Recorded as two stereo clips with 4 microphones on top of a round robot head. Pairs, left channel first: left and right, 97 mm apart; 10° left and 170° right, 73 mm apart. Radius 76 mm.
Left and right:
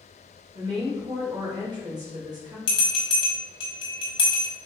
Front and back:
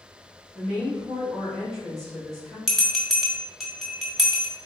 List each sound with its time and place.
0.6 s a woman speaking: 70° right, 1.7 m
2.7 s a bell: 100° left, 1.8 m